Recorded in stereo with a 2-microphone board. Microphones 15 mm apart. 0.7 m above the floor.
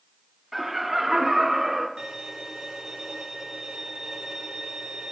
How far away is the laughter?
About 1.4 m.